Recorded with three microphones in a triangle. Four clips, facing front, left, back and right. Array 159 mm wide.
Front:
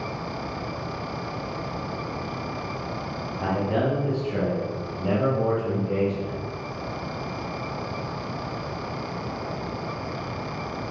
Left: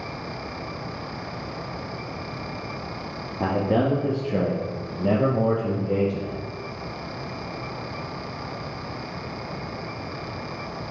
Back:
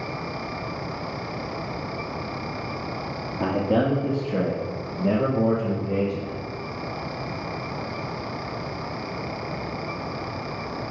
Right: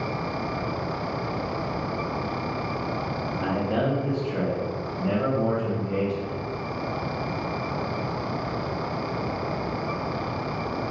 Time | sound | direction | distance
3.4 | a man speaking | 130° left | 2.5 m